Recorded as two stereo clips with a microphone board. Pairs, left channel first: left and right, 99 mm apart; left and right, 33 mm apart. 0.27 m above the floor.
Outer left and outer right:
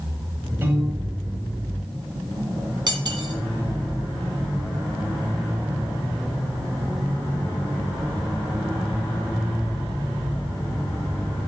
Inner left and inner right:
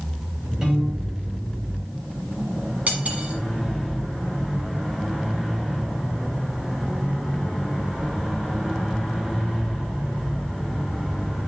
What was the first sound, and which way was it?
A piano, 20° right (ahead or behind).